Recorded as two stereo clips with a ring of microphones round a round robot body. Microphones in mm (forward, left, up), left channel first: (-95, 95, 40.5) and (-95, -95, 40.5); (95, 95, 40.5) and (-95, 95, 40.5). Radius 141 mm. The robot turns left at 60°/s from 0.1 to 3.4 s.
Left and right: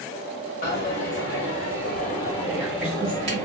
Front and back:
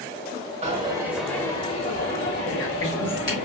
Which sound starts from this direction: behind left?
A dropped coin, at 0.6 s.